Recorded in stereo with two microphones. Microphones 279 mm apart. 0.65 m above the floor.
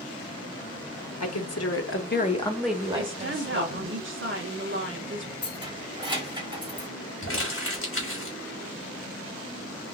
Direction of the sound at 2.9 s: 45° right (ahead or behind).